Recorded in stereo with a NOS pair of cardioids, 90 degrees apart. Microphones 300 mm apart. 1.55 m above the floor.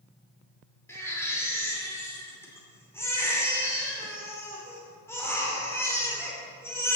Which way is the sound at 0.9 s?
10° left.